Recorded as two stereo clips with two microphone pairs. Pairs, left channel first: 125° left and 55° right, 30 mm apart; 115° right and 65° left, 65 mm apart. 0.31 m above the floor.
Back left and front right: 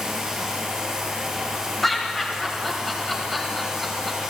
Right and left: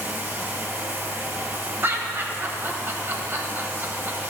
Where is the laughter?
50° left, 1.1 m.